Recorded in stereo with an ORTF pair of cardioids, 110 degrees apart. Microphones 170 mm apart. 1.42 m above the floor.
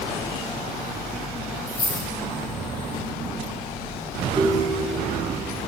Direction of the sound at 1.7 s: 65° left.